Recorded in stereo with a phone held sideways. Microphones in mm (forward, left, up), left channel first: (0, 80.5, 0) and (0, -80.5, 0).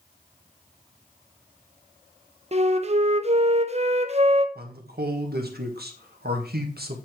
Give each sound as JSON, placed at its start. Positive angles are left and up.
{"t": 2.5, "sound": "a flute", "side_deg": -40, "distance_m": 0.6}
{"t": 4.5, "sound": "a man speaking", "side_deg": -75, "distance_m": 1.4}